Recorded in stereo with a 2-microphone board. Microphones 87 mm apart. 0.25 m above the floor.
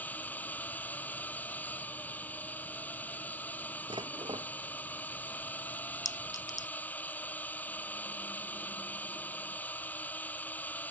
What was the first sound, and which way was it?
A drone, 20° left (ahead or behind).